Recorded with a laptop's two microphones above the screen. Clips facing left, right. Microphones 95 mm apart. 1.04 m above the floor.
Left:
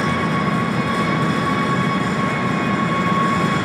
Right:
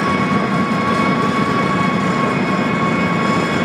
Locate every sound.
0.0 s an engine running: 75° right (ahead or behind), 0.8 m